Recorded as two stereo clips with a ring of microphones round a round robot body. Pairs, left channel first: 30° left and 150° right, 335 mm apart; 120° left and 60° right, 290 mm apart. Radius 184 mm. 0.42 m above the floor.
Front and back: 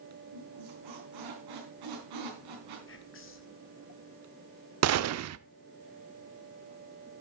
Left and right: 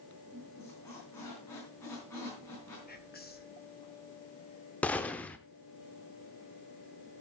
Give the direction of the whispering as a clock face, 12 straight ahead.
10 o'clock.